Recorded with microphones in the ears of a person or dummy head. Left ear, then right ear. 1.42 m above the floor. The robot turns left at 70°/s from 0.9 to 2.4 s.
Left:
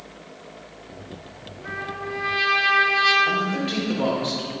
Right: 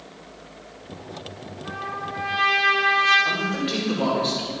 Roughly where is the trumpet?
Left.